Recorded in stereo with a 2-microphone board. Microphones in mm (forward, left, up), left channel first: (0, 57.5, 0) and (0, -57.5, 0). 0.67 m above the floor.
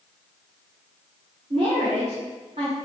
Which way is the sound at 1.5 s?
70° right (ahead or behind).